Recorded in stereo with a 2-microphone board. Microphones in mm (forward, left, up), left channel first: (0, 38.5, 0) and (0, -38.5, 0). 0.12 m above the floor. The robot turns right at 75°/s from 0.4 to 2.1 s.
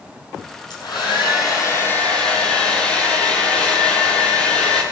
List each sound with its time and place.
0.7 s a hair dryer: 60° left, 5 m; by 4.8 s 165° left, 5 m